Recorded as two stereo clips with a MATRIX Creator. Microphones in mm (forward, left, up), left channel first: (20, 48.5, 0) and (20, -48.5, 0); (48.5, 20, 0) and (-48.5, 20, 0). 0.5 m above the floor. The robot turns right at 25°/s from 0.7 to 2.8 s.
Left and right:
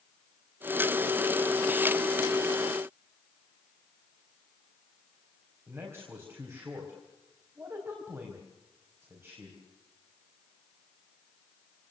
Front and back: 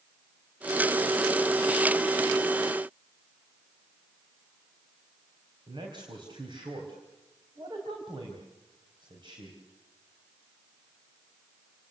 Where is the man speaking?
150° right, 4 m.